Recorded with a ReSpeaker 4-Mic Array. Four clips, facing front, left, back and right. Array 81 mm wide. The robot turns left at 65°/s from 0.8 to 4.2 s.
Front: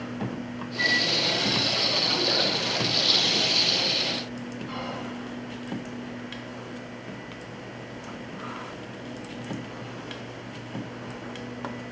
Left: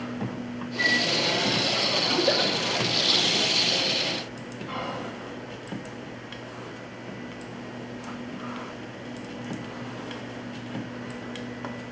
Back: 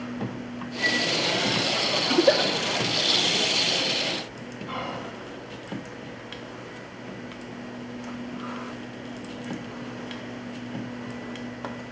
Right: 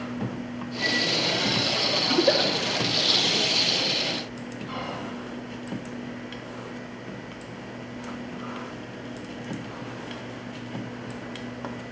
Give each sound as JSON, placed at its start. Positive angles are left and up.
{"t": 0.8, "sound": "a flute", "azimuth_deg": 55, "distance_m": 2.5}
{"t": 2.1, "sound": "a giggle", "azimuth_deg": -155, "distance_m": 1.0}
{"t": 4.7, "sound": "whispering", "azimuth_deg": 160, "distance_m": 1.5}